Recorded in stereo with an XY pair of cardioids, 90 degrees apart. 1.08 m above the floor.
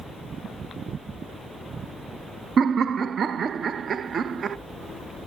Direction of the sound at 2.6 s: 55° right.